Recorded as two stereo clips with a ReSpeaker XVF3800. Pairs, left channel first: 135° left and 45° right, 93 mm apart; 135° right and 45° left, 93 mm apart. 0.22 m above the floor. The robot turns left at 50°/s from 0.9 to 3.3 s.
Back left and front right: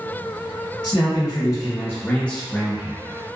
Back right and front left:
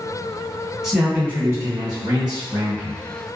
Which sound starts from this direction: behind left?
A man speaking, at 0.8 s.